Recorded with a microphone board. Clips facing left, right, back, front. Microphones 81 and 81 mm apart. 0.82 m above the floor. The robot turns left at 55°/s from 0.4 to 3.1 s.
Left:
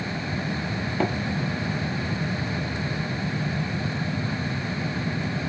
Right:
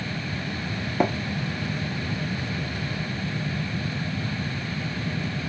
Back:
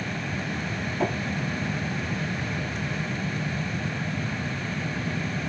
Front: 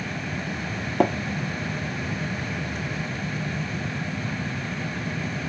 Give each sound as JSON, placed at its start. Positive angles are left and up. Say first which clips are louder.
{"t": 1.0, "sound": "tapping", "louder": "right 3 dB, front 6 dB", "azimuth_deg": -15, "distance_m": 0.5}